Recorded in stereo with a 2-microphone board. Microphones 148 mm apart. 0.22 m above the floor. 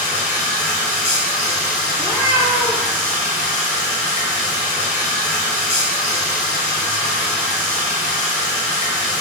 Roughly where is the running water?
Centre.